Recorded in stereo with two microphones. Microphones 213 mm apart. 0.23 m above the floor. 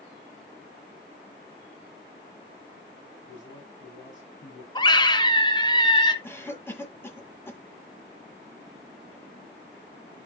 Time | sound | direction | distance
3.3 | a man speaking | 60° left (ahead or behind) | 6.5 m
4.8 | a scream | 20° left (ahead or behind) | 1.0 m
6.2 | a cough | 10° left (ahead or behind) | 1.6 m